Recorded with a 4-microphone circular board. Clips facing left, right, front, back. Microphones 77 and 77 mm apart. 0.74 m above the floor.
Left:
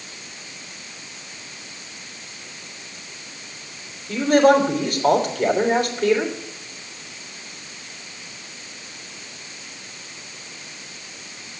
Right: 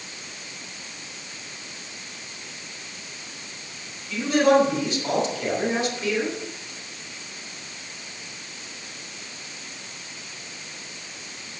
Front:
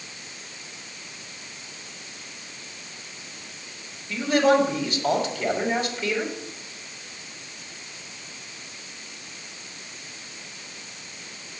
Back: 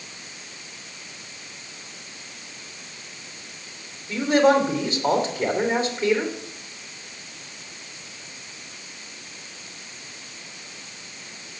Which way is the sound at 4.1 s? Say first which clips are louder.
Left 4 dB, back 2 dB; 120° left.